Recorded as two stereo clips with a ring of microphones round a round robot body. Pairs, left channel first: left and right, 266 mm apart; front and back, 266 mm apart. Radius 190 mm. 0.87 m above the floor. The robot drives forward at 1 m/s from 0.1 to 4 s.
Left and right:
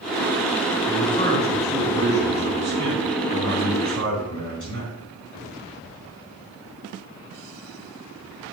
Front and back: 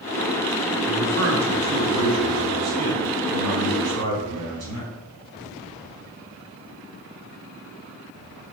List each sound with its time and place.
0.9 s a man speaking: 165° left, 2 m; by 4.9 s 175° left, 5 m